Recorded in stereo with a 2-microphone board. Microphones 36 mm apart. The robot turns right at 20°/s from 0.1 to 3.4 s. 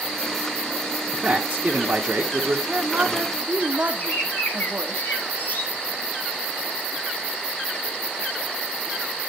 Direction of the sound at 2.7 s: 40° right (ahead or behind).